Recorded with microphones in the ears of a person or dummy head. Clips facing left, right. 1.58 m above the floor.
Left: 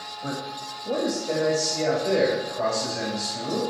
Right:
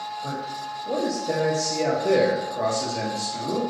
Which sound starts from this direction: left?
A man speaking, at 0.2 s.